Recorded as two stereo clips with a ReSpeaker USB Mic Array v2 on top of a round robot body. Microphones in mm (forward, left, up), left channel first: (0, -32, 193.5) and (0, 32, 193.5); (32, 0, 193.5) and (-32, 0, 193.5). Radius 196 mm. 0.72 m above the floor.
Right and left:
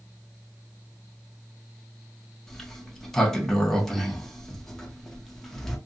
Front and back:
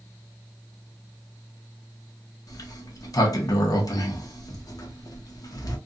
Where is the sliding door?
10° right, 0.9 m.